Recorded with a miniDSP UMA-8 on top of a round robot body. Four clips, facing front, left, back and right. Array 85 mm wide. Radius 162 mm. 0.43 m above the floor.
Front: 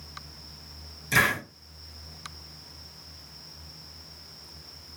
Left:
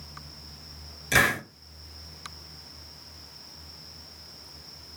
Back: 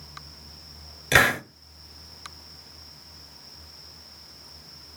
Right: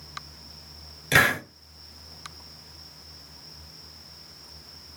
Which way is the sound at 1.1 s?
160° right.